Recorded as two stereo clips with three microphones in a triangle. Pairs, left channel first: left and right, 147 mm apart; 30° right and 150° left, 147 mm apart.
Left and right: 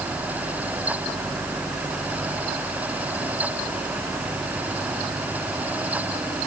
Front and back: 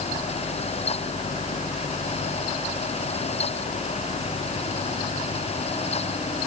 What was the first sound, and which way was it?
Only background noise.